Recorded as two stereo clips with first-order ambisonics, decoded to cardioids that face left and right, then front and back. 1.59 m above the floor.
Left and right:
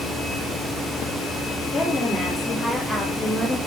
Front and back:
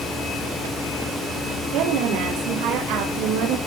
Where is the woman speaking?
165° left, 3.5 m; by 3.6 s straight behind, 2.5 m.